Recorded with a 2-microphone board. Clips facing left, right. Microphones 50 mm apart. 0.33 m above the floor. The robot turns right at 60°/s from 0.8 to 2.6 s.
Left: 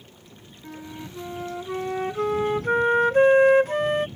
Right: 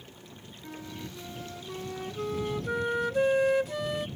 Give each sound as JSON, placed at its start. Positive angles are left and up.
{"t": 0.6, "sound": "a flute", "azimuth_deg": 15}